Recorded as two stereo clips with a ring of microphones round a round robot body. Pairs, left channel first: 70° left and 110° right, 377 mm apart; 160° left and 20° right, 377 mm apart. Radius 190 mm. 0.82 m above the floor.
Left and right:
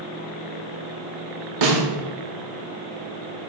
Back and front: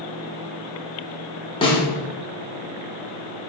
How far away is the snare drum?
About 1.6 m.